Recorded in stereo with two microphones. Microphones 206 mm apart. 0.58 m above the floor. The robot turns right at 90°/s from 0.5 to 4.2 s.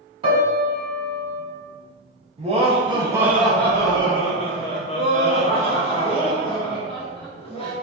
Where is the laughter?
30° right (ahead or behind), 0.8 m; by 7.7 s 25° left (ahead or behind), 0.8 m.